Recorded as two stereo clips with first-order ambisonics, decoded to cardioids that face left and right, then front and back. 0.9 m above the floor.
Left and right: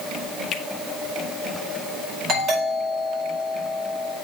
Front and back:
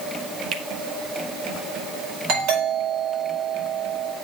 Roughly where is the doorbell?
Behind right.